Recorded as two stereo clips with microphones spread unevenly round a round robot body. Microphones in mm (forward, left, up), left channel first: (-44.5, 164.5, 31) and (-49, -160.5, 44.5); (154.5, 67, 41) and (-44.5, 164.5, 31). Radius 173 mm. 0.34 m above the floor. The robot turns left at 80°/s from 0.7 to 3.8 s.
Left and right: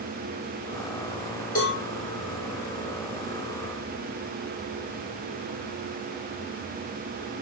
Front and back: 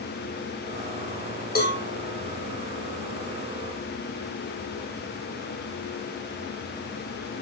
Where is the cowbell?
20° left, 6.5 m; by 1.8 s straight ahead, 6.5 m.